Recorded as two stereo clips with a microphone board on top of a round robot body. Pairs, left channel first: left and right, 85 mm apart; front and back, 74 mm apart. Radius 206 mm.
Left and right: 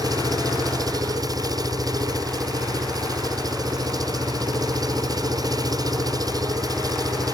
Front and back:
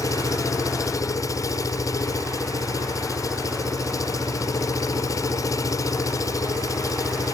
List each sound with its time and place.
0.0 s an engine running: 45° right